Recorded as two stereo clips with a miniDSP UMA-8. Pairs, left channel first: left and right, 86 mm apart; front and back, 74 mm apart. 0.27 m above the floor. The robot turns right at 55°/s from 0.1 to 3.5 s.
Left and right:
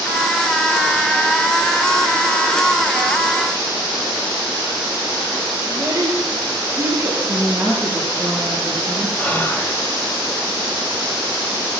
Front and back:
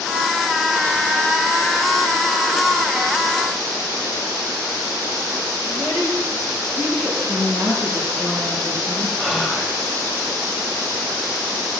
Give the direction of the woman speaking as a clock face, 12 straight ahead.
6 o'clock.